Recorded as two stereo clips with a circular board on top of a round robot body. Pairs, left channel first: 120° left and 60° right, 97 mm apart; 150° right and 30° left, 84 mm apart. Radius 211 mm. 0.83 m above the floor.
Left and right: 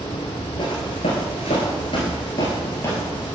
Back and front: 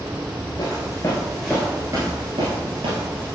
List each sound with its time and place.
0.6 s footsteps: 160° left, 1.1 m; by 3.4 s 45° left, 1.5 m